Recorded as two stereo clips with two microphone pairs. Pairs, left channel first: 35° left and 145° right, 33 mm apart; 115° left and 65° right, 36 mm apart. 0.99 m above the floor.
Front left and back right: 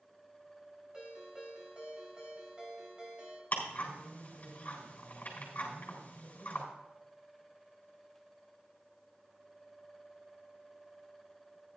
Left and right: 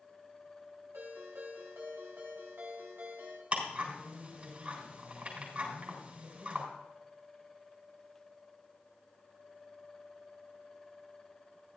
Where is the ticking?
10° right, 3.5 m.